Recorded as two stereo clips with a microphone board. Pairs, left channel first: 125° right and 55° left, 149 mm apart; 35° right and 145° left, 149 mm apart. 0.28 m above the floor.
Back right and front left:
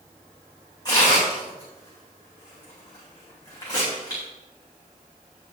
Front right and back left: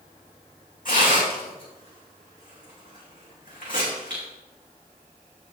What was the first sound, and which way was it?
Tearing paper, 60° right.